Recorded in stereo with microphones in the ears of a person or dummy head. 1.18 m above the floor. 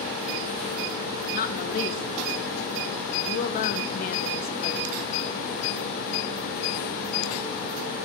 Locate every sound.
1.3 s a woman speaking: 45° left (ahead or behind), 1.7 m